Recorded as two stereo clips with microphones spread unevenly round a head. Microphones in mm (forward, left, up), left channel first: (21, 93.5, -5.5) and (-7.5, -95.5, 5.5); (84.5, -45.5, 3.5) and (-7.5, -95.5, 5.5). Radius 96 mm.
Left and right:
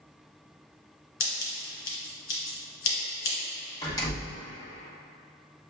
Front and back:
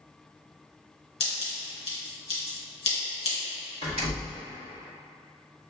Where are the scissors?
55° left, 1.9 m.